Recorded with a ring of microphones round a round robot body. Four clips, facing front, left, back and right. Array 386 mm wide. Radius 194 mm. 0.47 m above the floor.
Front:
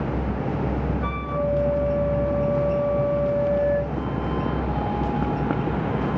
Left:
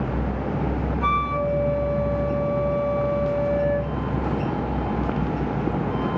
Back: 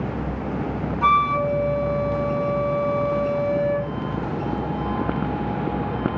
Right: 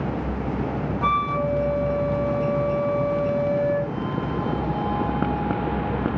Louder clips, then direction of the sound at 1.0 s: Right 1 dB, back 7 dB; straight behind.